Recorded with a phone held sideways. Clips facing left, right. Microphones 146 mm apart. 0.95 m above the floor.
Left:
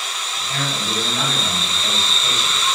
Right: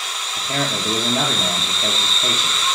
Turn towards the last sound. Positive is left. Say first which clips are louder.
# right 4 dB
turn(degrees=-50)  # may be behind; listen again after turning